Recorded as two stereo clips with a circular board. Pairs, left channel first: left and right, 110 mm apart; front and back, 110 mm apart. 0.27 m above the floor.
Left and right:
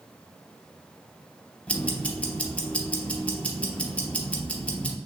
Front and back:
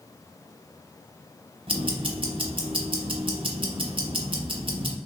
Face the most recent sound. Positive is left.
turn(degrees=165)